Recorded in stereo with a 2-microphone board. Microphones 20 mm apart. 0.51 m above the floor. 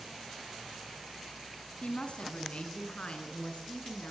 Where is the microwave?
I don't hear a microwave.